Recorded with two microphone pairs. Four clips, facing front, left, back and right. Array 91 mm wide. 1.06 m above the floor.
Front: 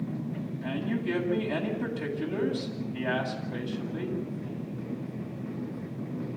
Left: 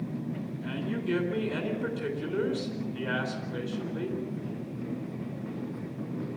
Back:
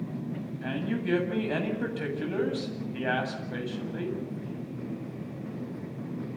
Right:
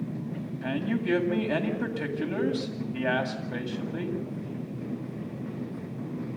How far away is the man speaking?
About 8 m.